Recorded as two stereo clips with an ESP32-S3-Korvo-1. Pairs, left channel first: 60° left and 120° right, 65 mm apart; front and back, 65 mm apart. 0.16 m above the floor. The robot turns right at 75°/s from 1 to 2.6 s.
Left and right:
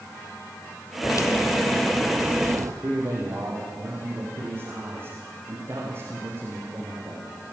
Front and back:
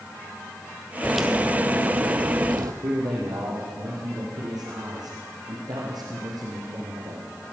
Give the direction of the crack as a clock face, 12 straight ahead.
9 o'clock.